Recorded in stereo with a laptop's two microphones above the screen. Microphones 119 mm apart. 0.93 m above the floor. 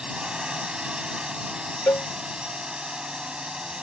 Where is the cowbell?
25° left (ahead or behind).